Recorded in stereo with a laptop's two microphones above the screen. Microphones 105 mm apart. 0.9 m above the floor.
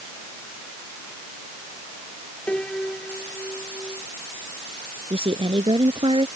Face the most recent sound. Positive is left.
turn(degrees=-55)  # may be behind; listen again after turning